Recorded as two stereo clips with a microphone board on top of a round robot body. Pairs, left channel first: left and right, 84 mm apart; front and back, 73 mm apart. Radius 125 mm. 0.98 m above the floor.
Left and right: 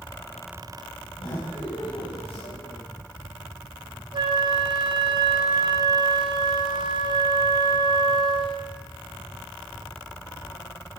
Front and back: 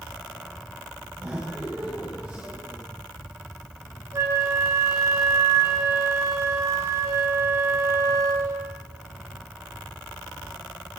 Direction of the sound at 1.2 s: 120° left.